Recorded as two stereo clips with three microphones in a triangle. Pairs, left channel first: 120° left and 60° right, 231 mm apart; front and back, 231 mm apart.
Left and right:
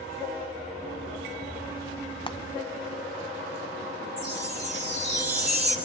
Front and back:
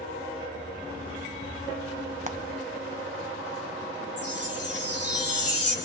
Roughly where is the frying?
Behind.